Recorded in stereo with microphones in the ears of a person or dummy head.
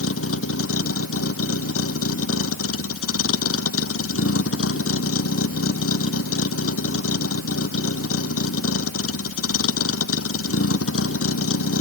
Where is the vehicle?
90° left.